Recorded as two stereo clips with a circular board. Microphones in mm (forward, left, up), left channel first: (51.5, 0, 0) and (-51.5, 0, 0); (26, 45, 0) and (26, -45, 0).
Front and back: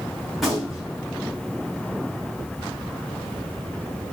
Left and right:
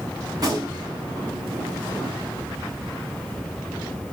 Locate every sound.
0.3 s a gunshot: 90° right, 2 m